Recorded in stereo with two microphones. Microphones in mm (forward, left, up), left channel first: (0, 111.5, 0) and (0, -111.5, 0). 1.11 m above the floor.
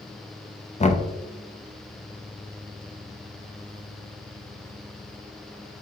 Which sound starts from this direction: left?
Knocking, at 0.8 s.